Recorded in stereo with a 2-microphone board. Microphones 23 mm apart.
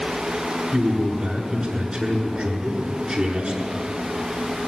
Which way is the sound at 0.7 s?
25° right (ahead or behind).